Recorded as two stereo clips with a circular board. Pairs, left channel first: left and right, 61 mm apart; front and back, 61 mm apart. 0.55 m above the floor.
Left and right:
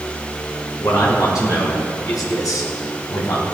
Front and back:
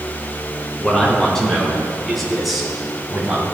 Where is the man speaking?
80° left, 4.5 m; by 3.4 s 105° left, 2.5 m.